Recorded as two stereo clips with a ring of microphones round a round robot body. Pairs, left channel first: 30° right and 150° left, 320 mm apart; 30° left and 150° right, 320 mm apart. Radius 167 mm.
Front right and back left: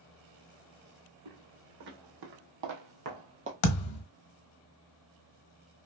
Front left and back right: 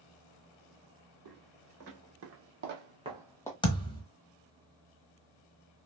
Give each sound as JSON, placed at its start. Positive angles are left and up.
{"t": 1.2, "sound": "footsteps", "azimuth_deg": 170, "distance_m": 1.4}
{"t": 3.6, "sound": "a thud", "azimuth_deg": -45, "distance_m": 0.7}